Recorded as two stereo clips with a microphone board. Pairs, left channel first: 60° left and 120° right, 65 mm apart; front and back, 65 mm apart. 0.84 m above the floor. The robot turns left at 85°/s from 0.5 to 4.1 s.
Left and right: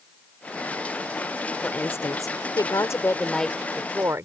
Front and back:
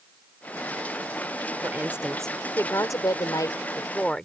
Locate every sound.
1.6 s a woman speaking: 130° left; by 4.3 s 75° right